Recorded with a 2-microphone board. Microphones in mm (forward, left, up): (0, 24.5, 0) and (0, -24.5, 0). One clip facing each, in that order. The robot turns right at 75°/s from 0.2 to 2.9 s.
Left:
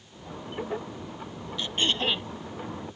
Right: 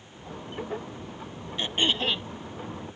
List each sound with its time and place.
1.6 s throat clearing: 35° right; by 2.3 s 20° left